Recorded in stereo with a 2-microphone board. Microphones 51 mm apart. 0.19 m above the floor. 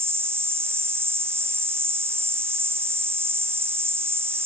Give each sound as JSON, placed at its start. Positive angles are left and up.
{"t": 0.0, "sound": "an insect", "side_deg": -55, "distance_m": 1.1}